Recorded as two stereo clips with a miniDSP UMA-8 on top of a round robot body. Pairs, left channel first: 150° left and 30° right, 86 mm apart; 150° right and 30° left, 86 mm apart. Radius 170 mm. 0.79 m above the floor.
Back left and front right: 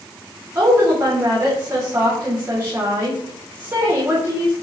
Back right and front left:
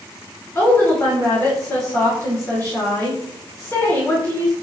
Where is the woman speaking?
90° right, 3 m.